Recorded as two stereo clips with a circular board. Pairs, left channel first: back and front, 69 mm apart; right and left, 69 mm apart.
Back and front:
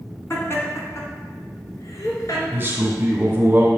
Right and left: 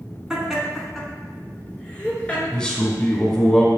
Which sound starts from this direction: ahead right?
A man speaking, at 2.5 s.